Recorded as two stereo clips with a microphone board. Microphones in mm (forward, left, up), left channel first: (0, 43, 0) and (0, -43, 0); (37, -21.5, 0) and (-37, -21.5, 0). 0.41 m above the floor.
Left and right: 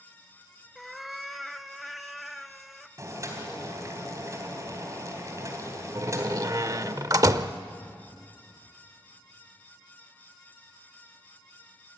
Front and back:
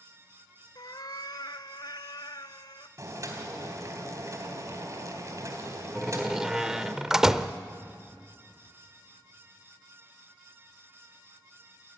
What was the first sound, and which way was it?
A cat meowing, straight ahead.